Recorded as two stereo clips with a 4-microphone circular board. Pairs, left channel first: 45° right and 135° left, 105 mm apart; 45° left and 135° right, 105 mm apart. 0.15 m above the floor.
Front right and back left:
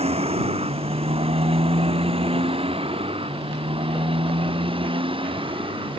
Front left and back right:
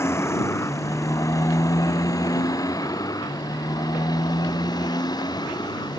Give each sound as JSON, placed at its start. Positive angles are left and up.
{"t": 0.0, "sound": "a motorcycle", "azimuth_deg": 110}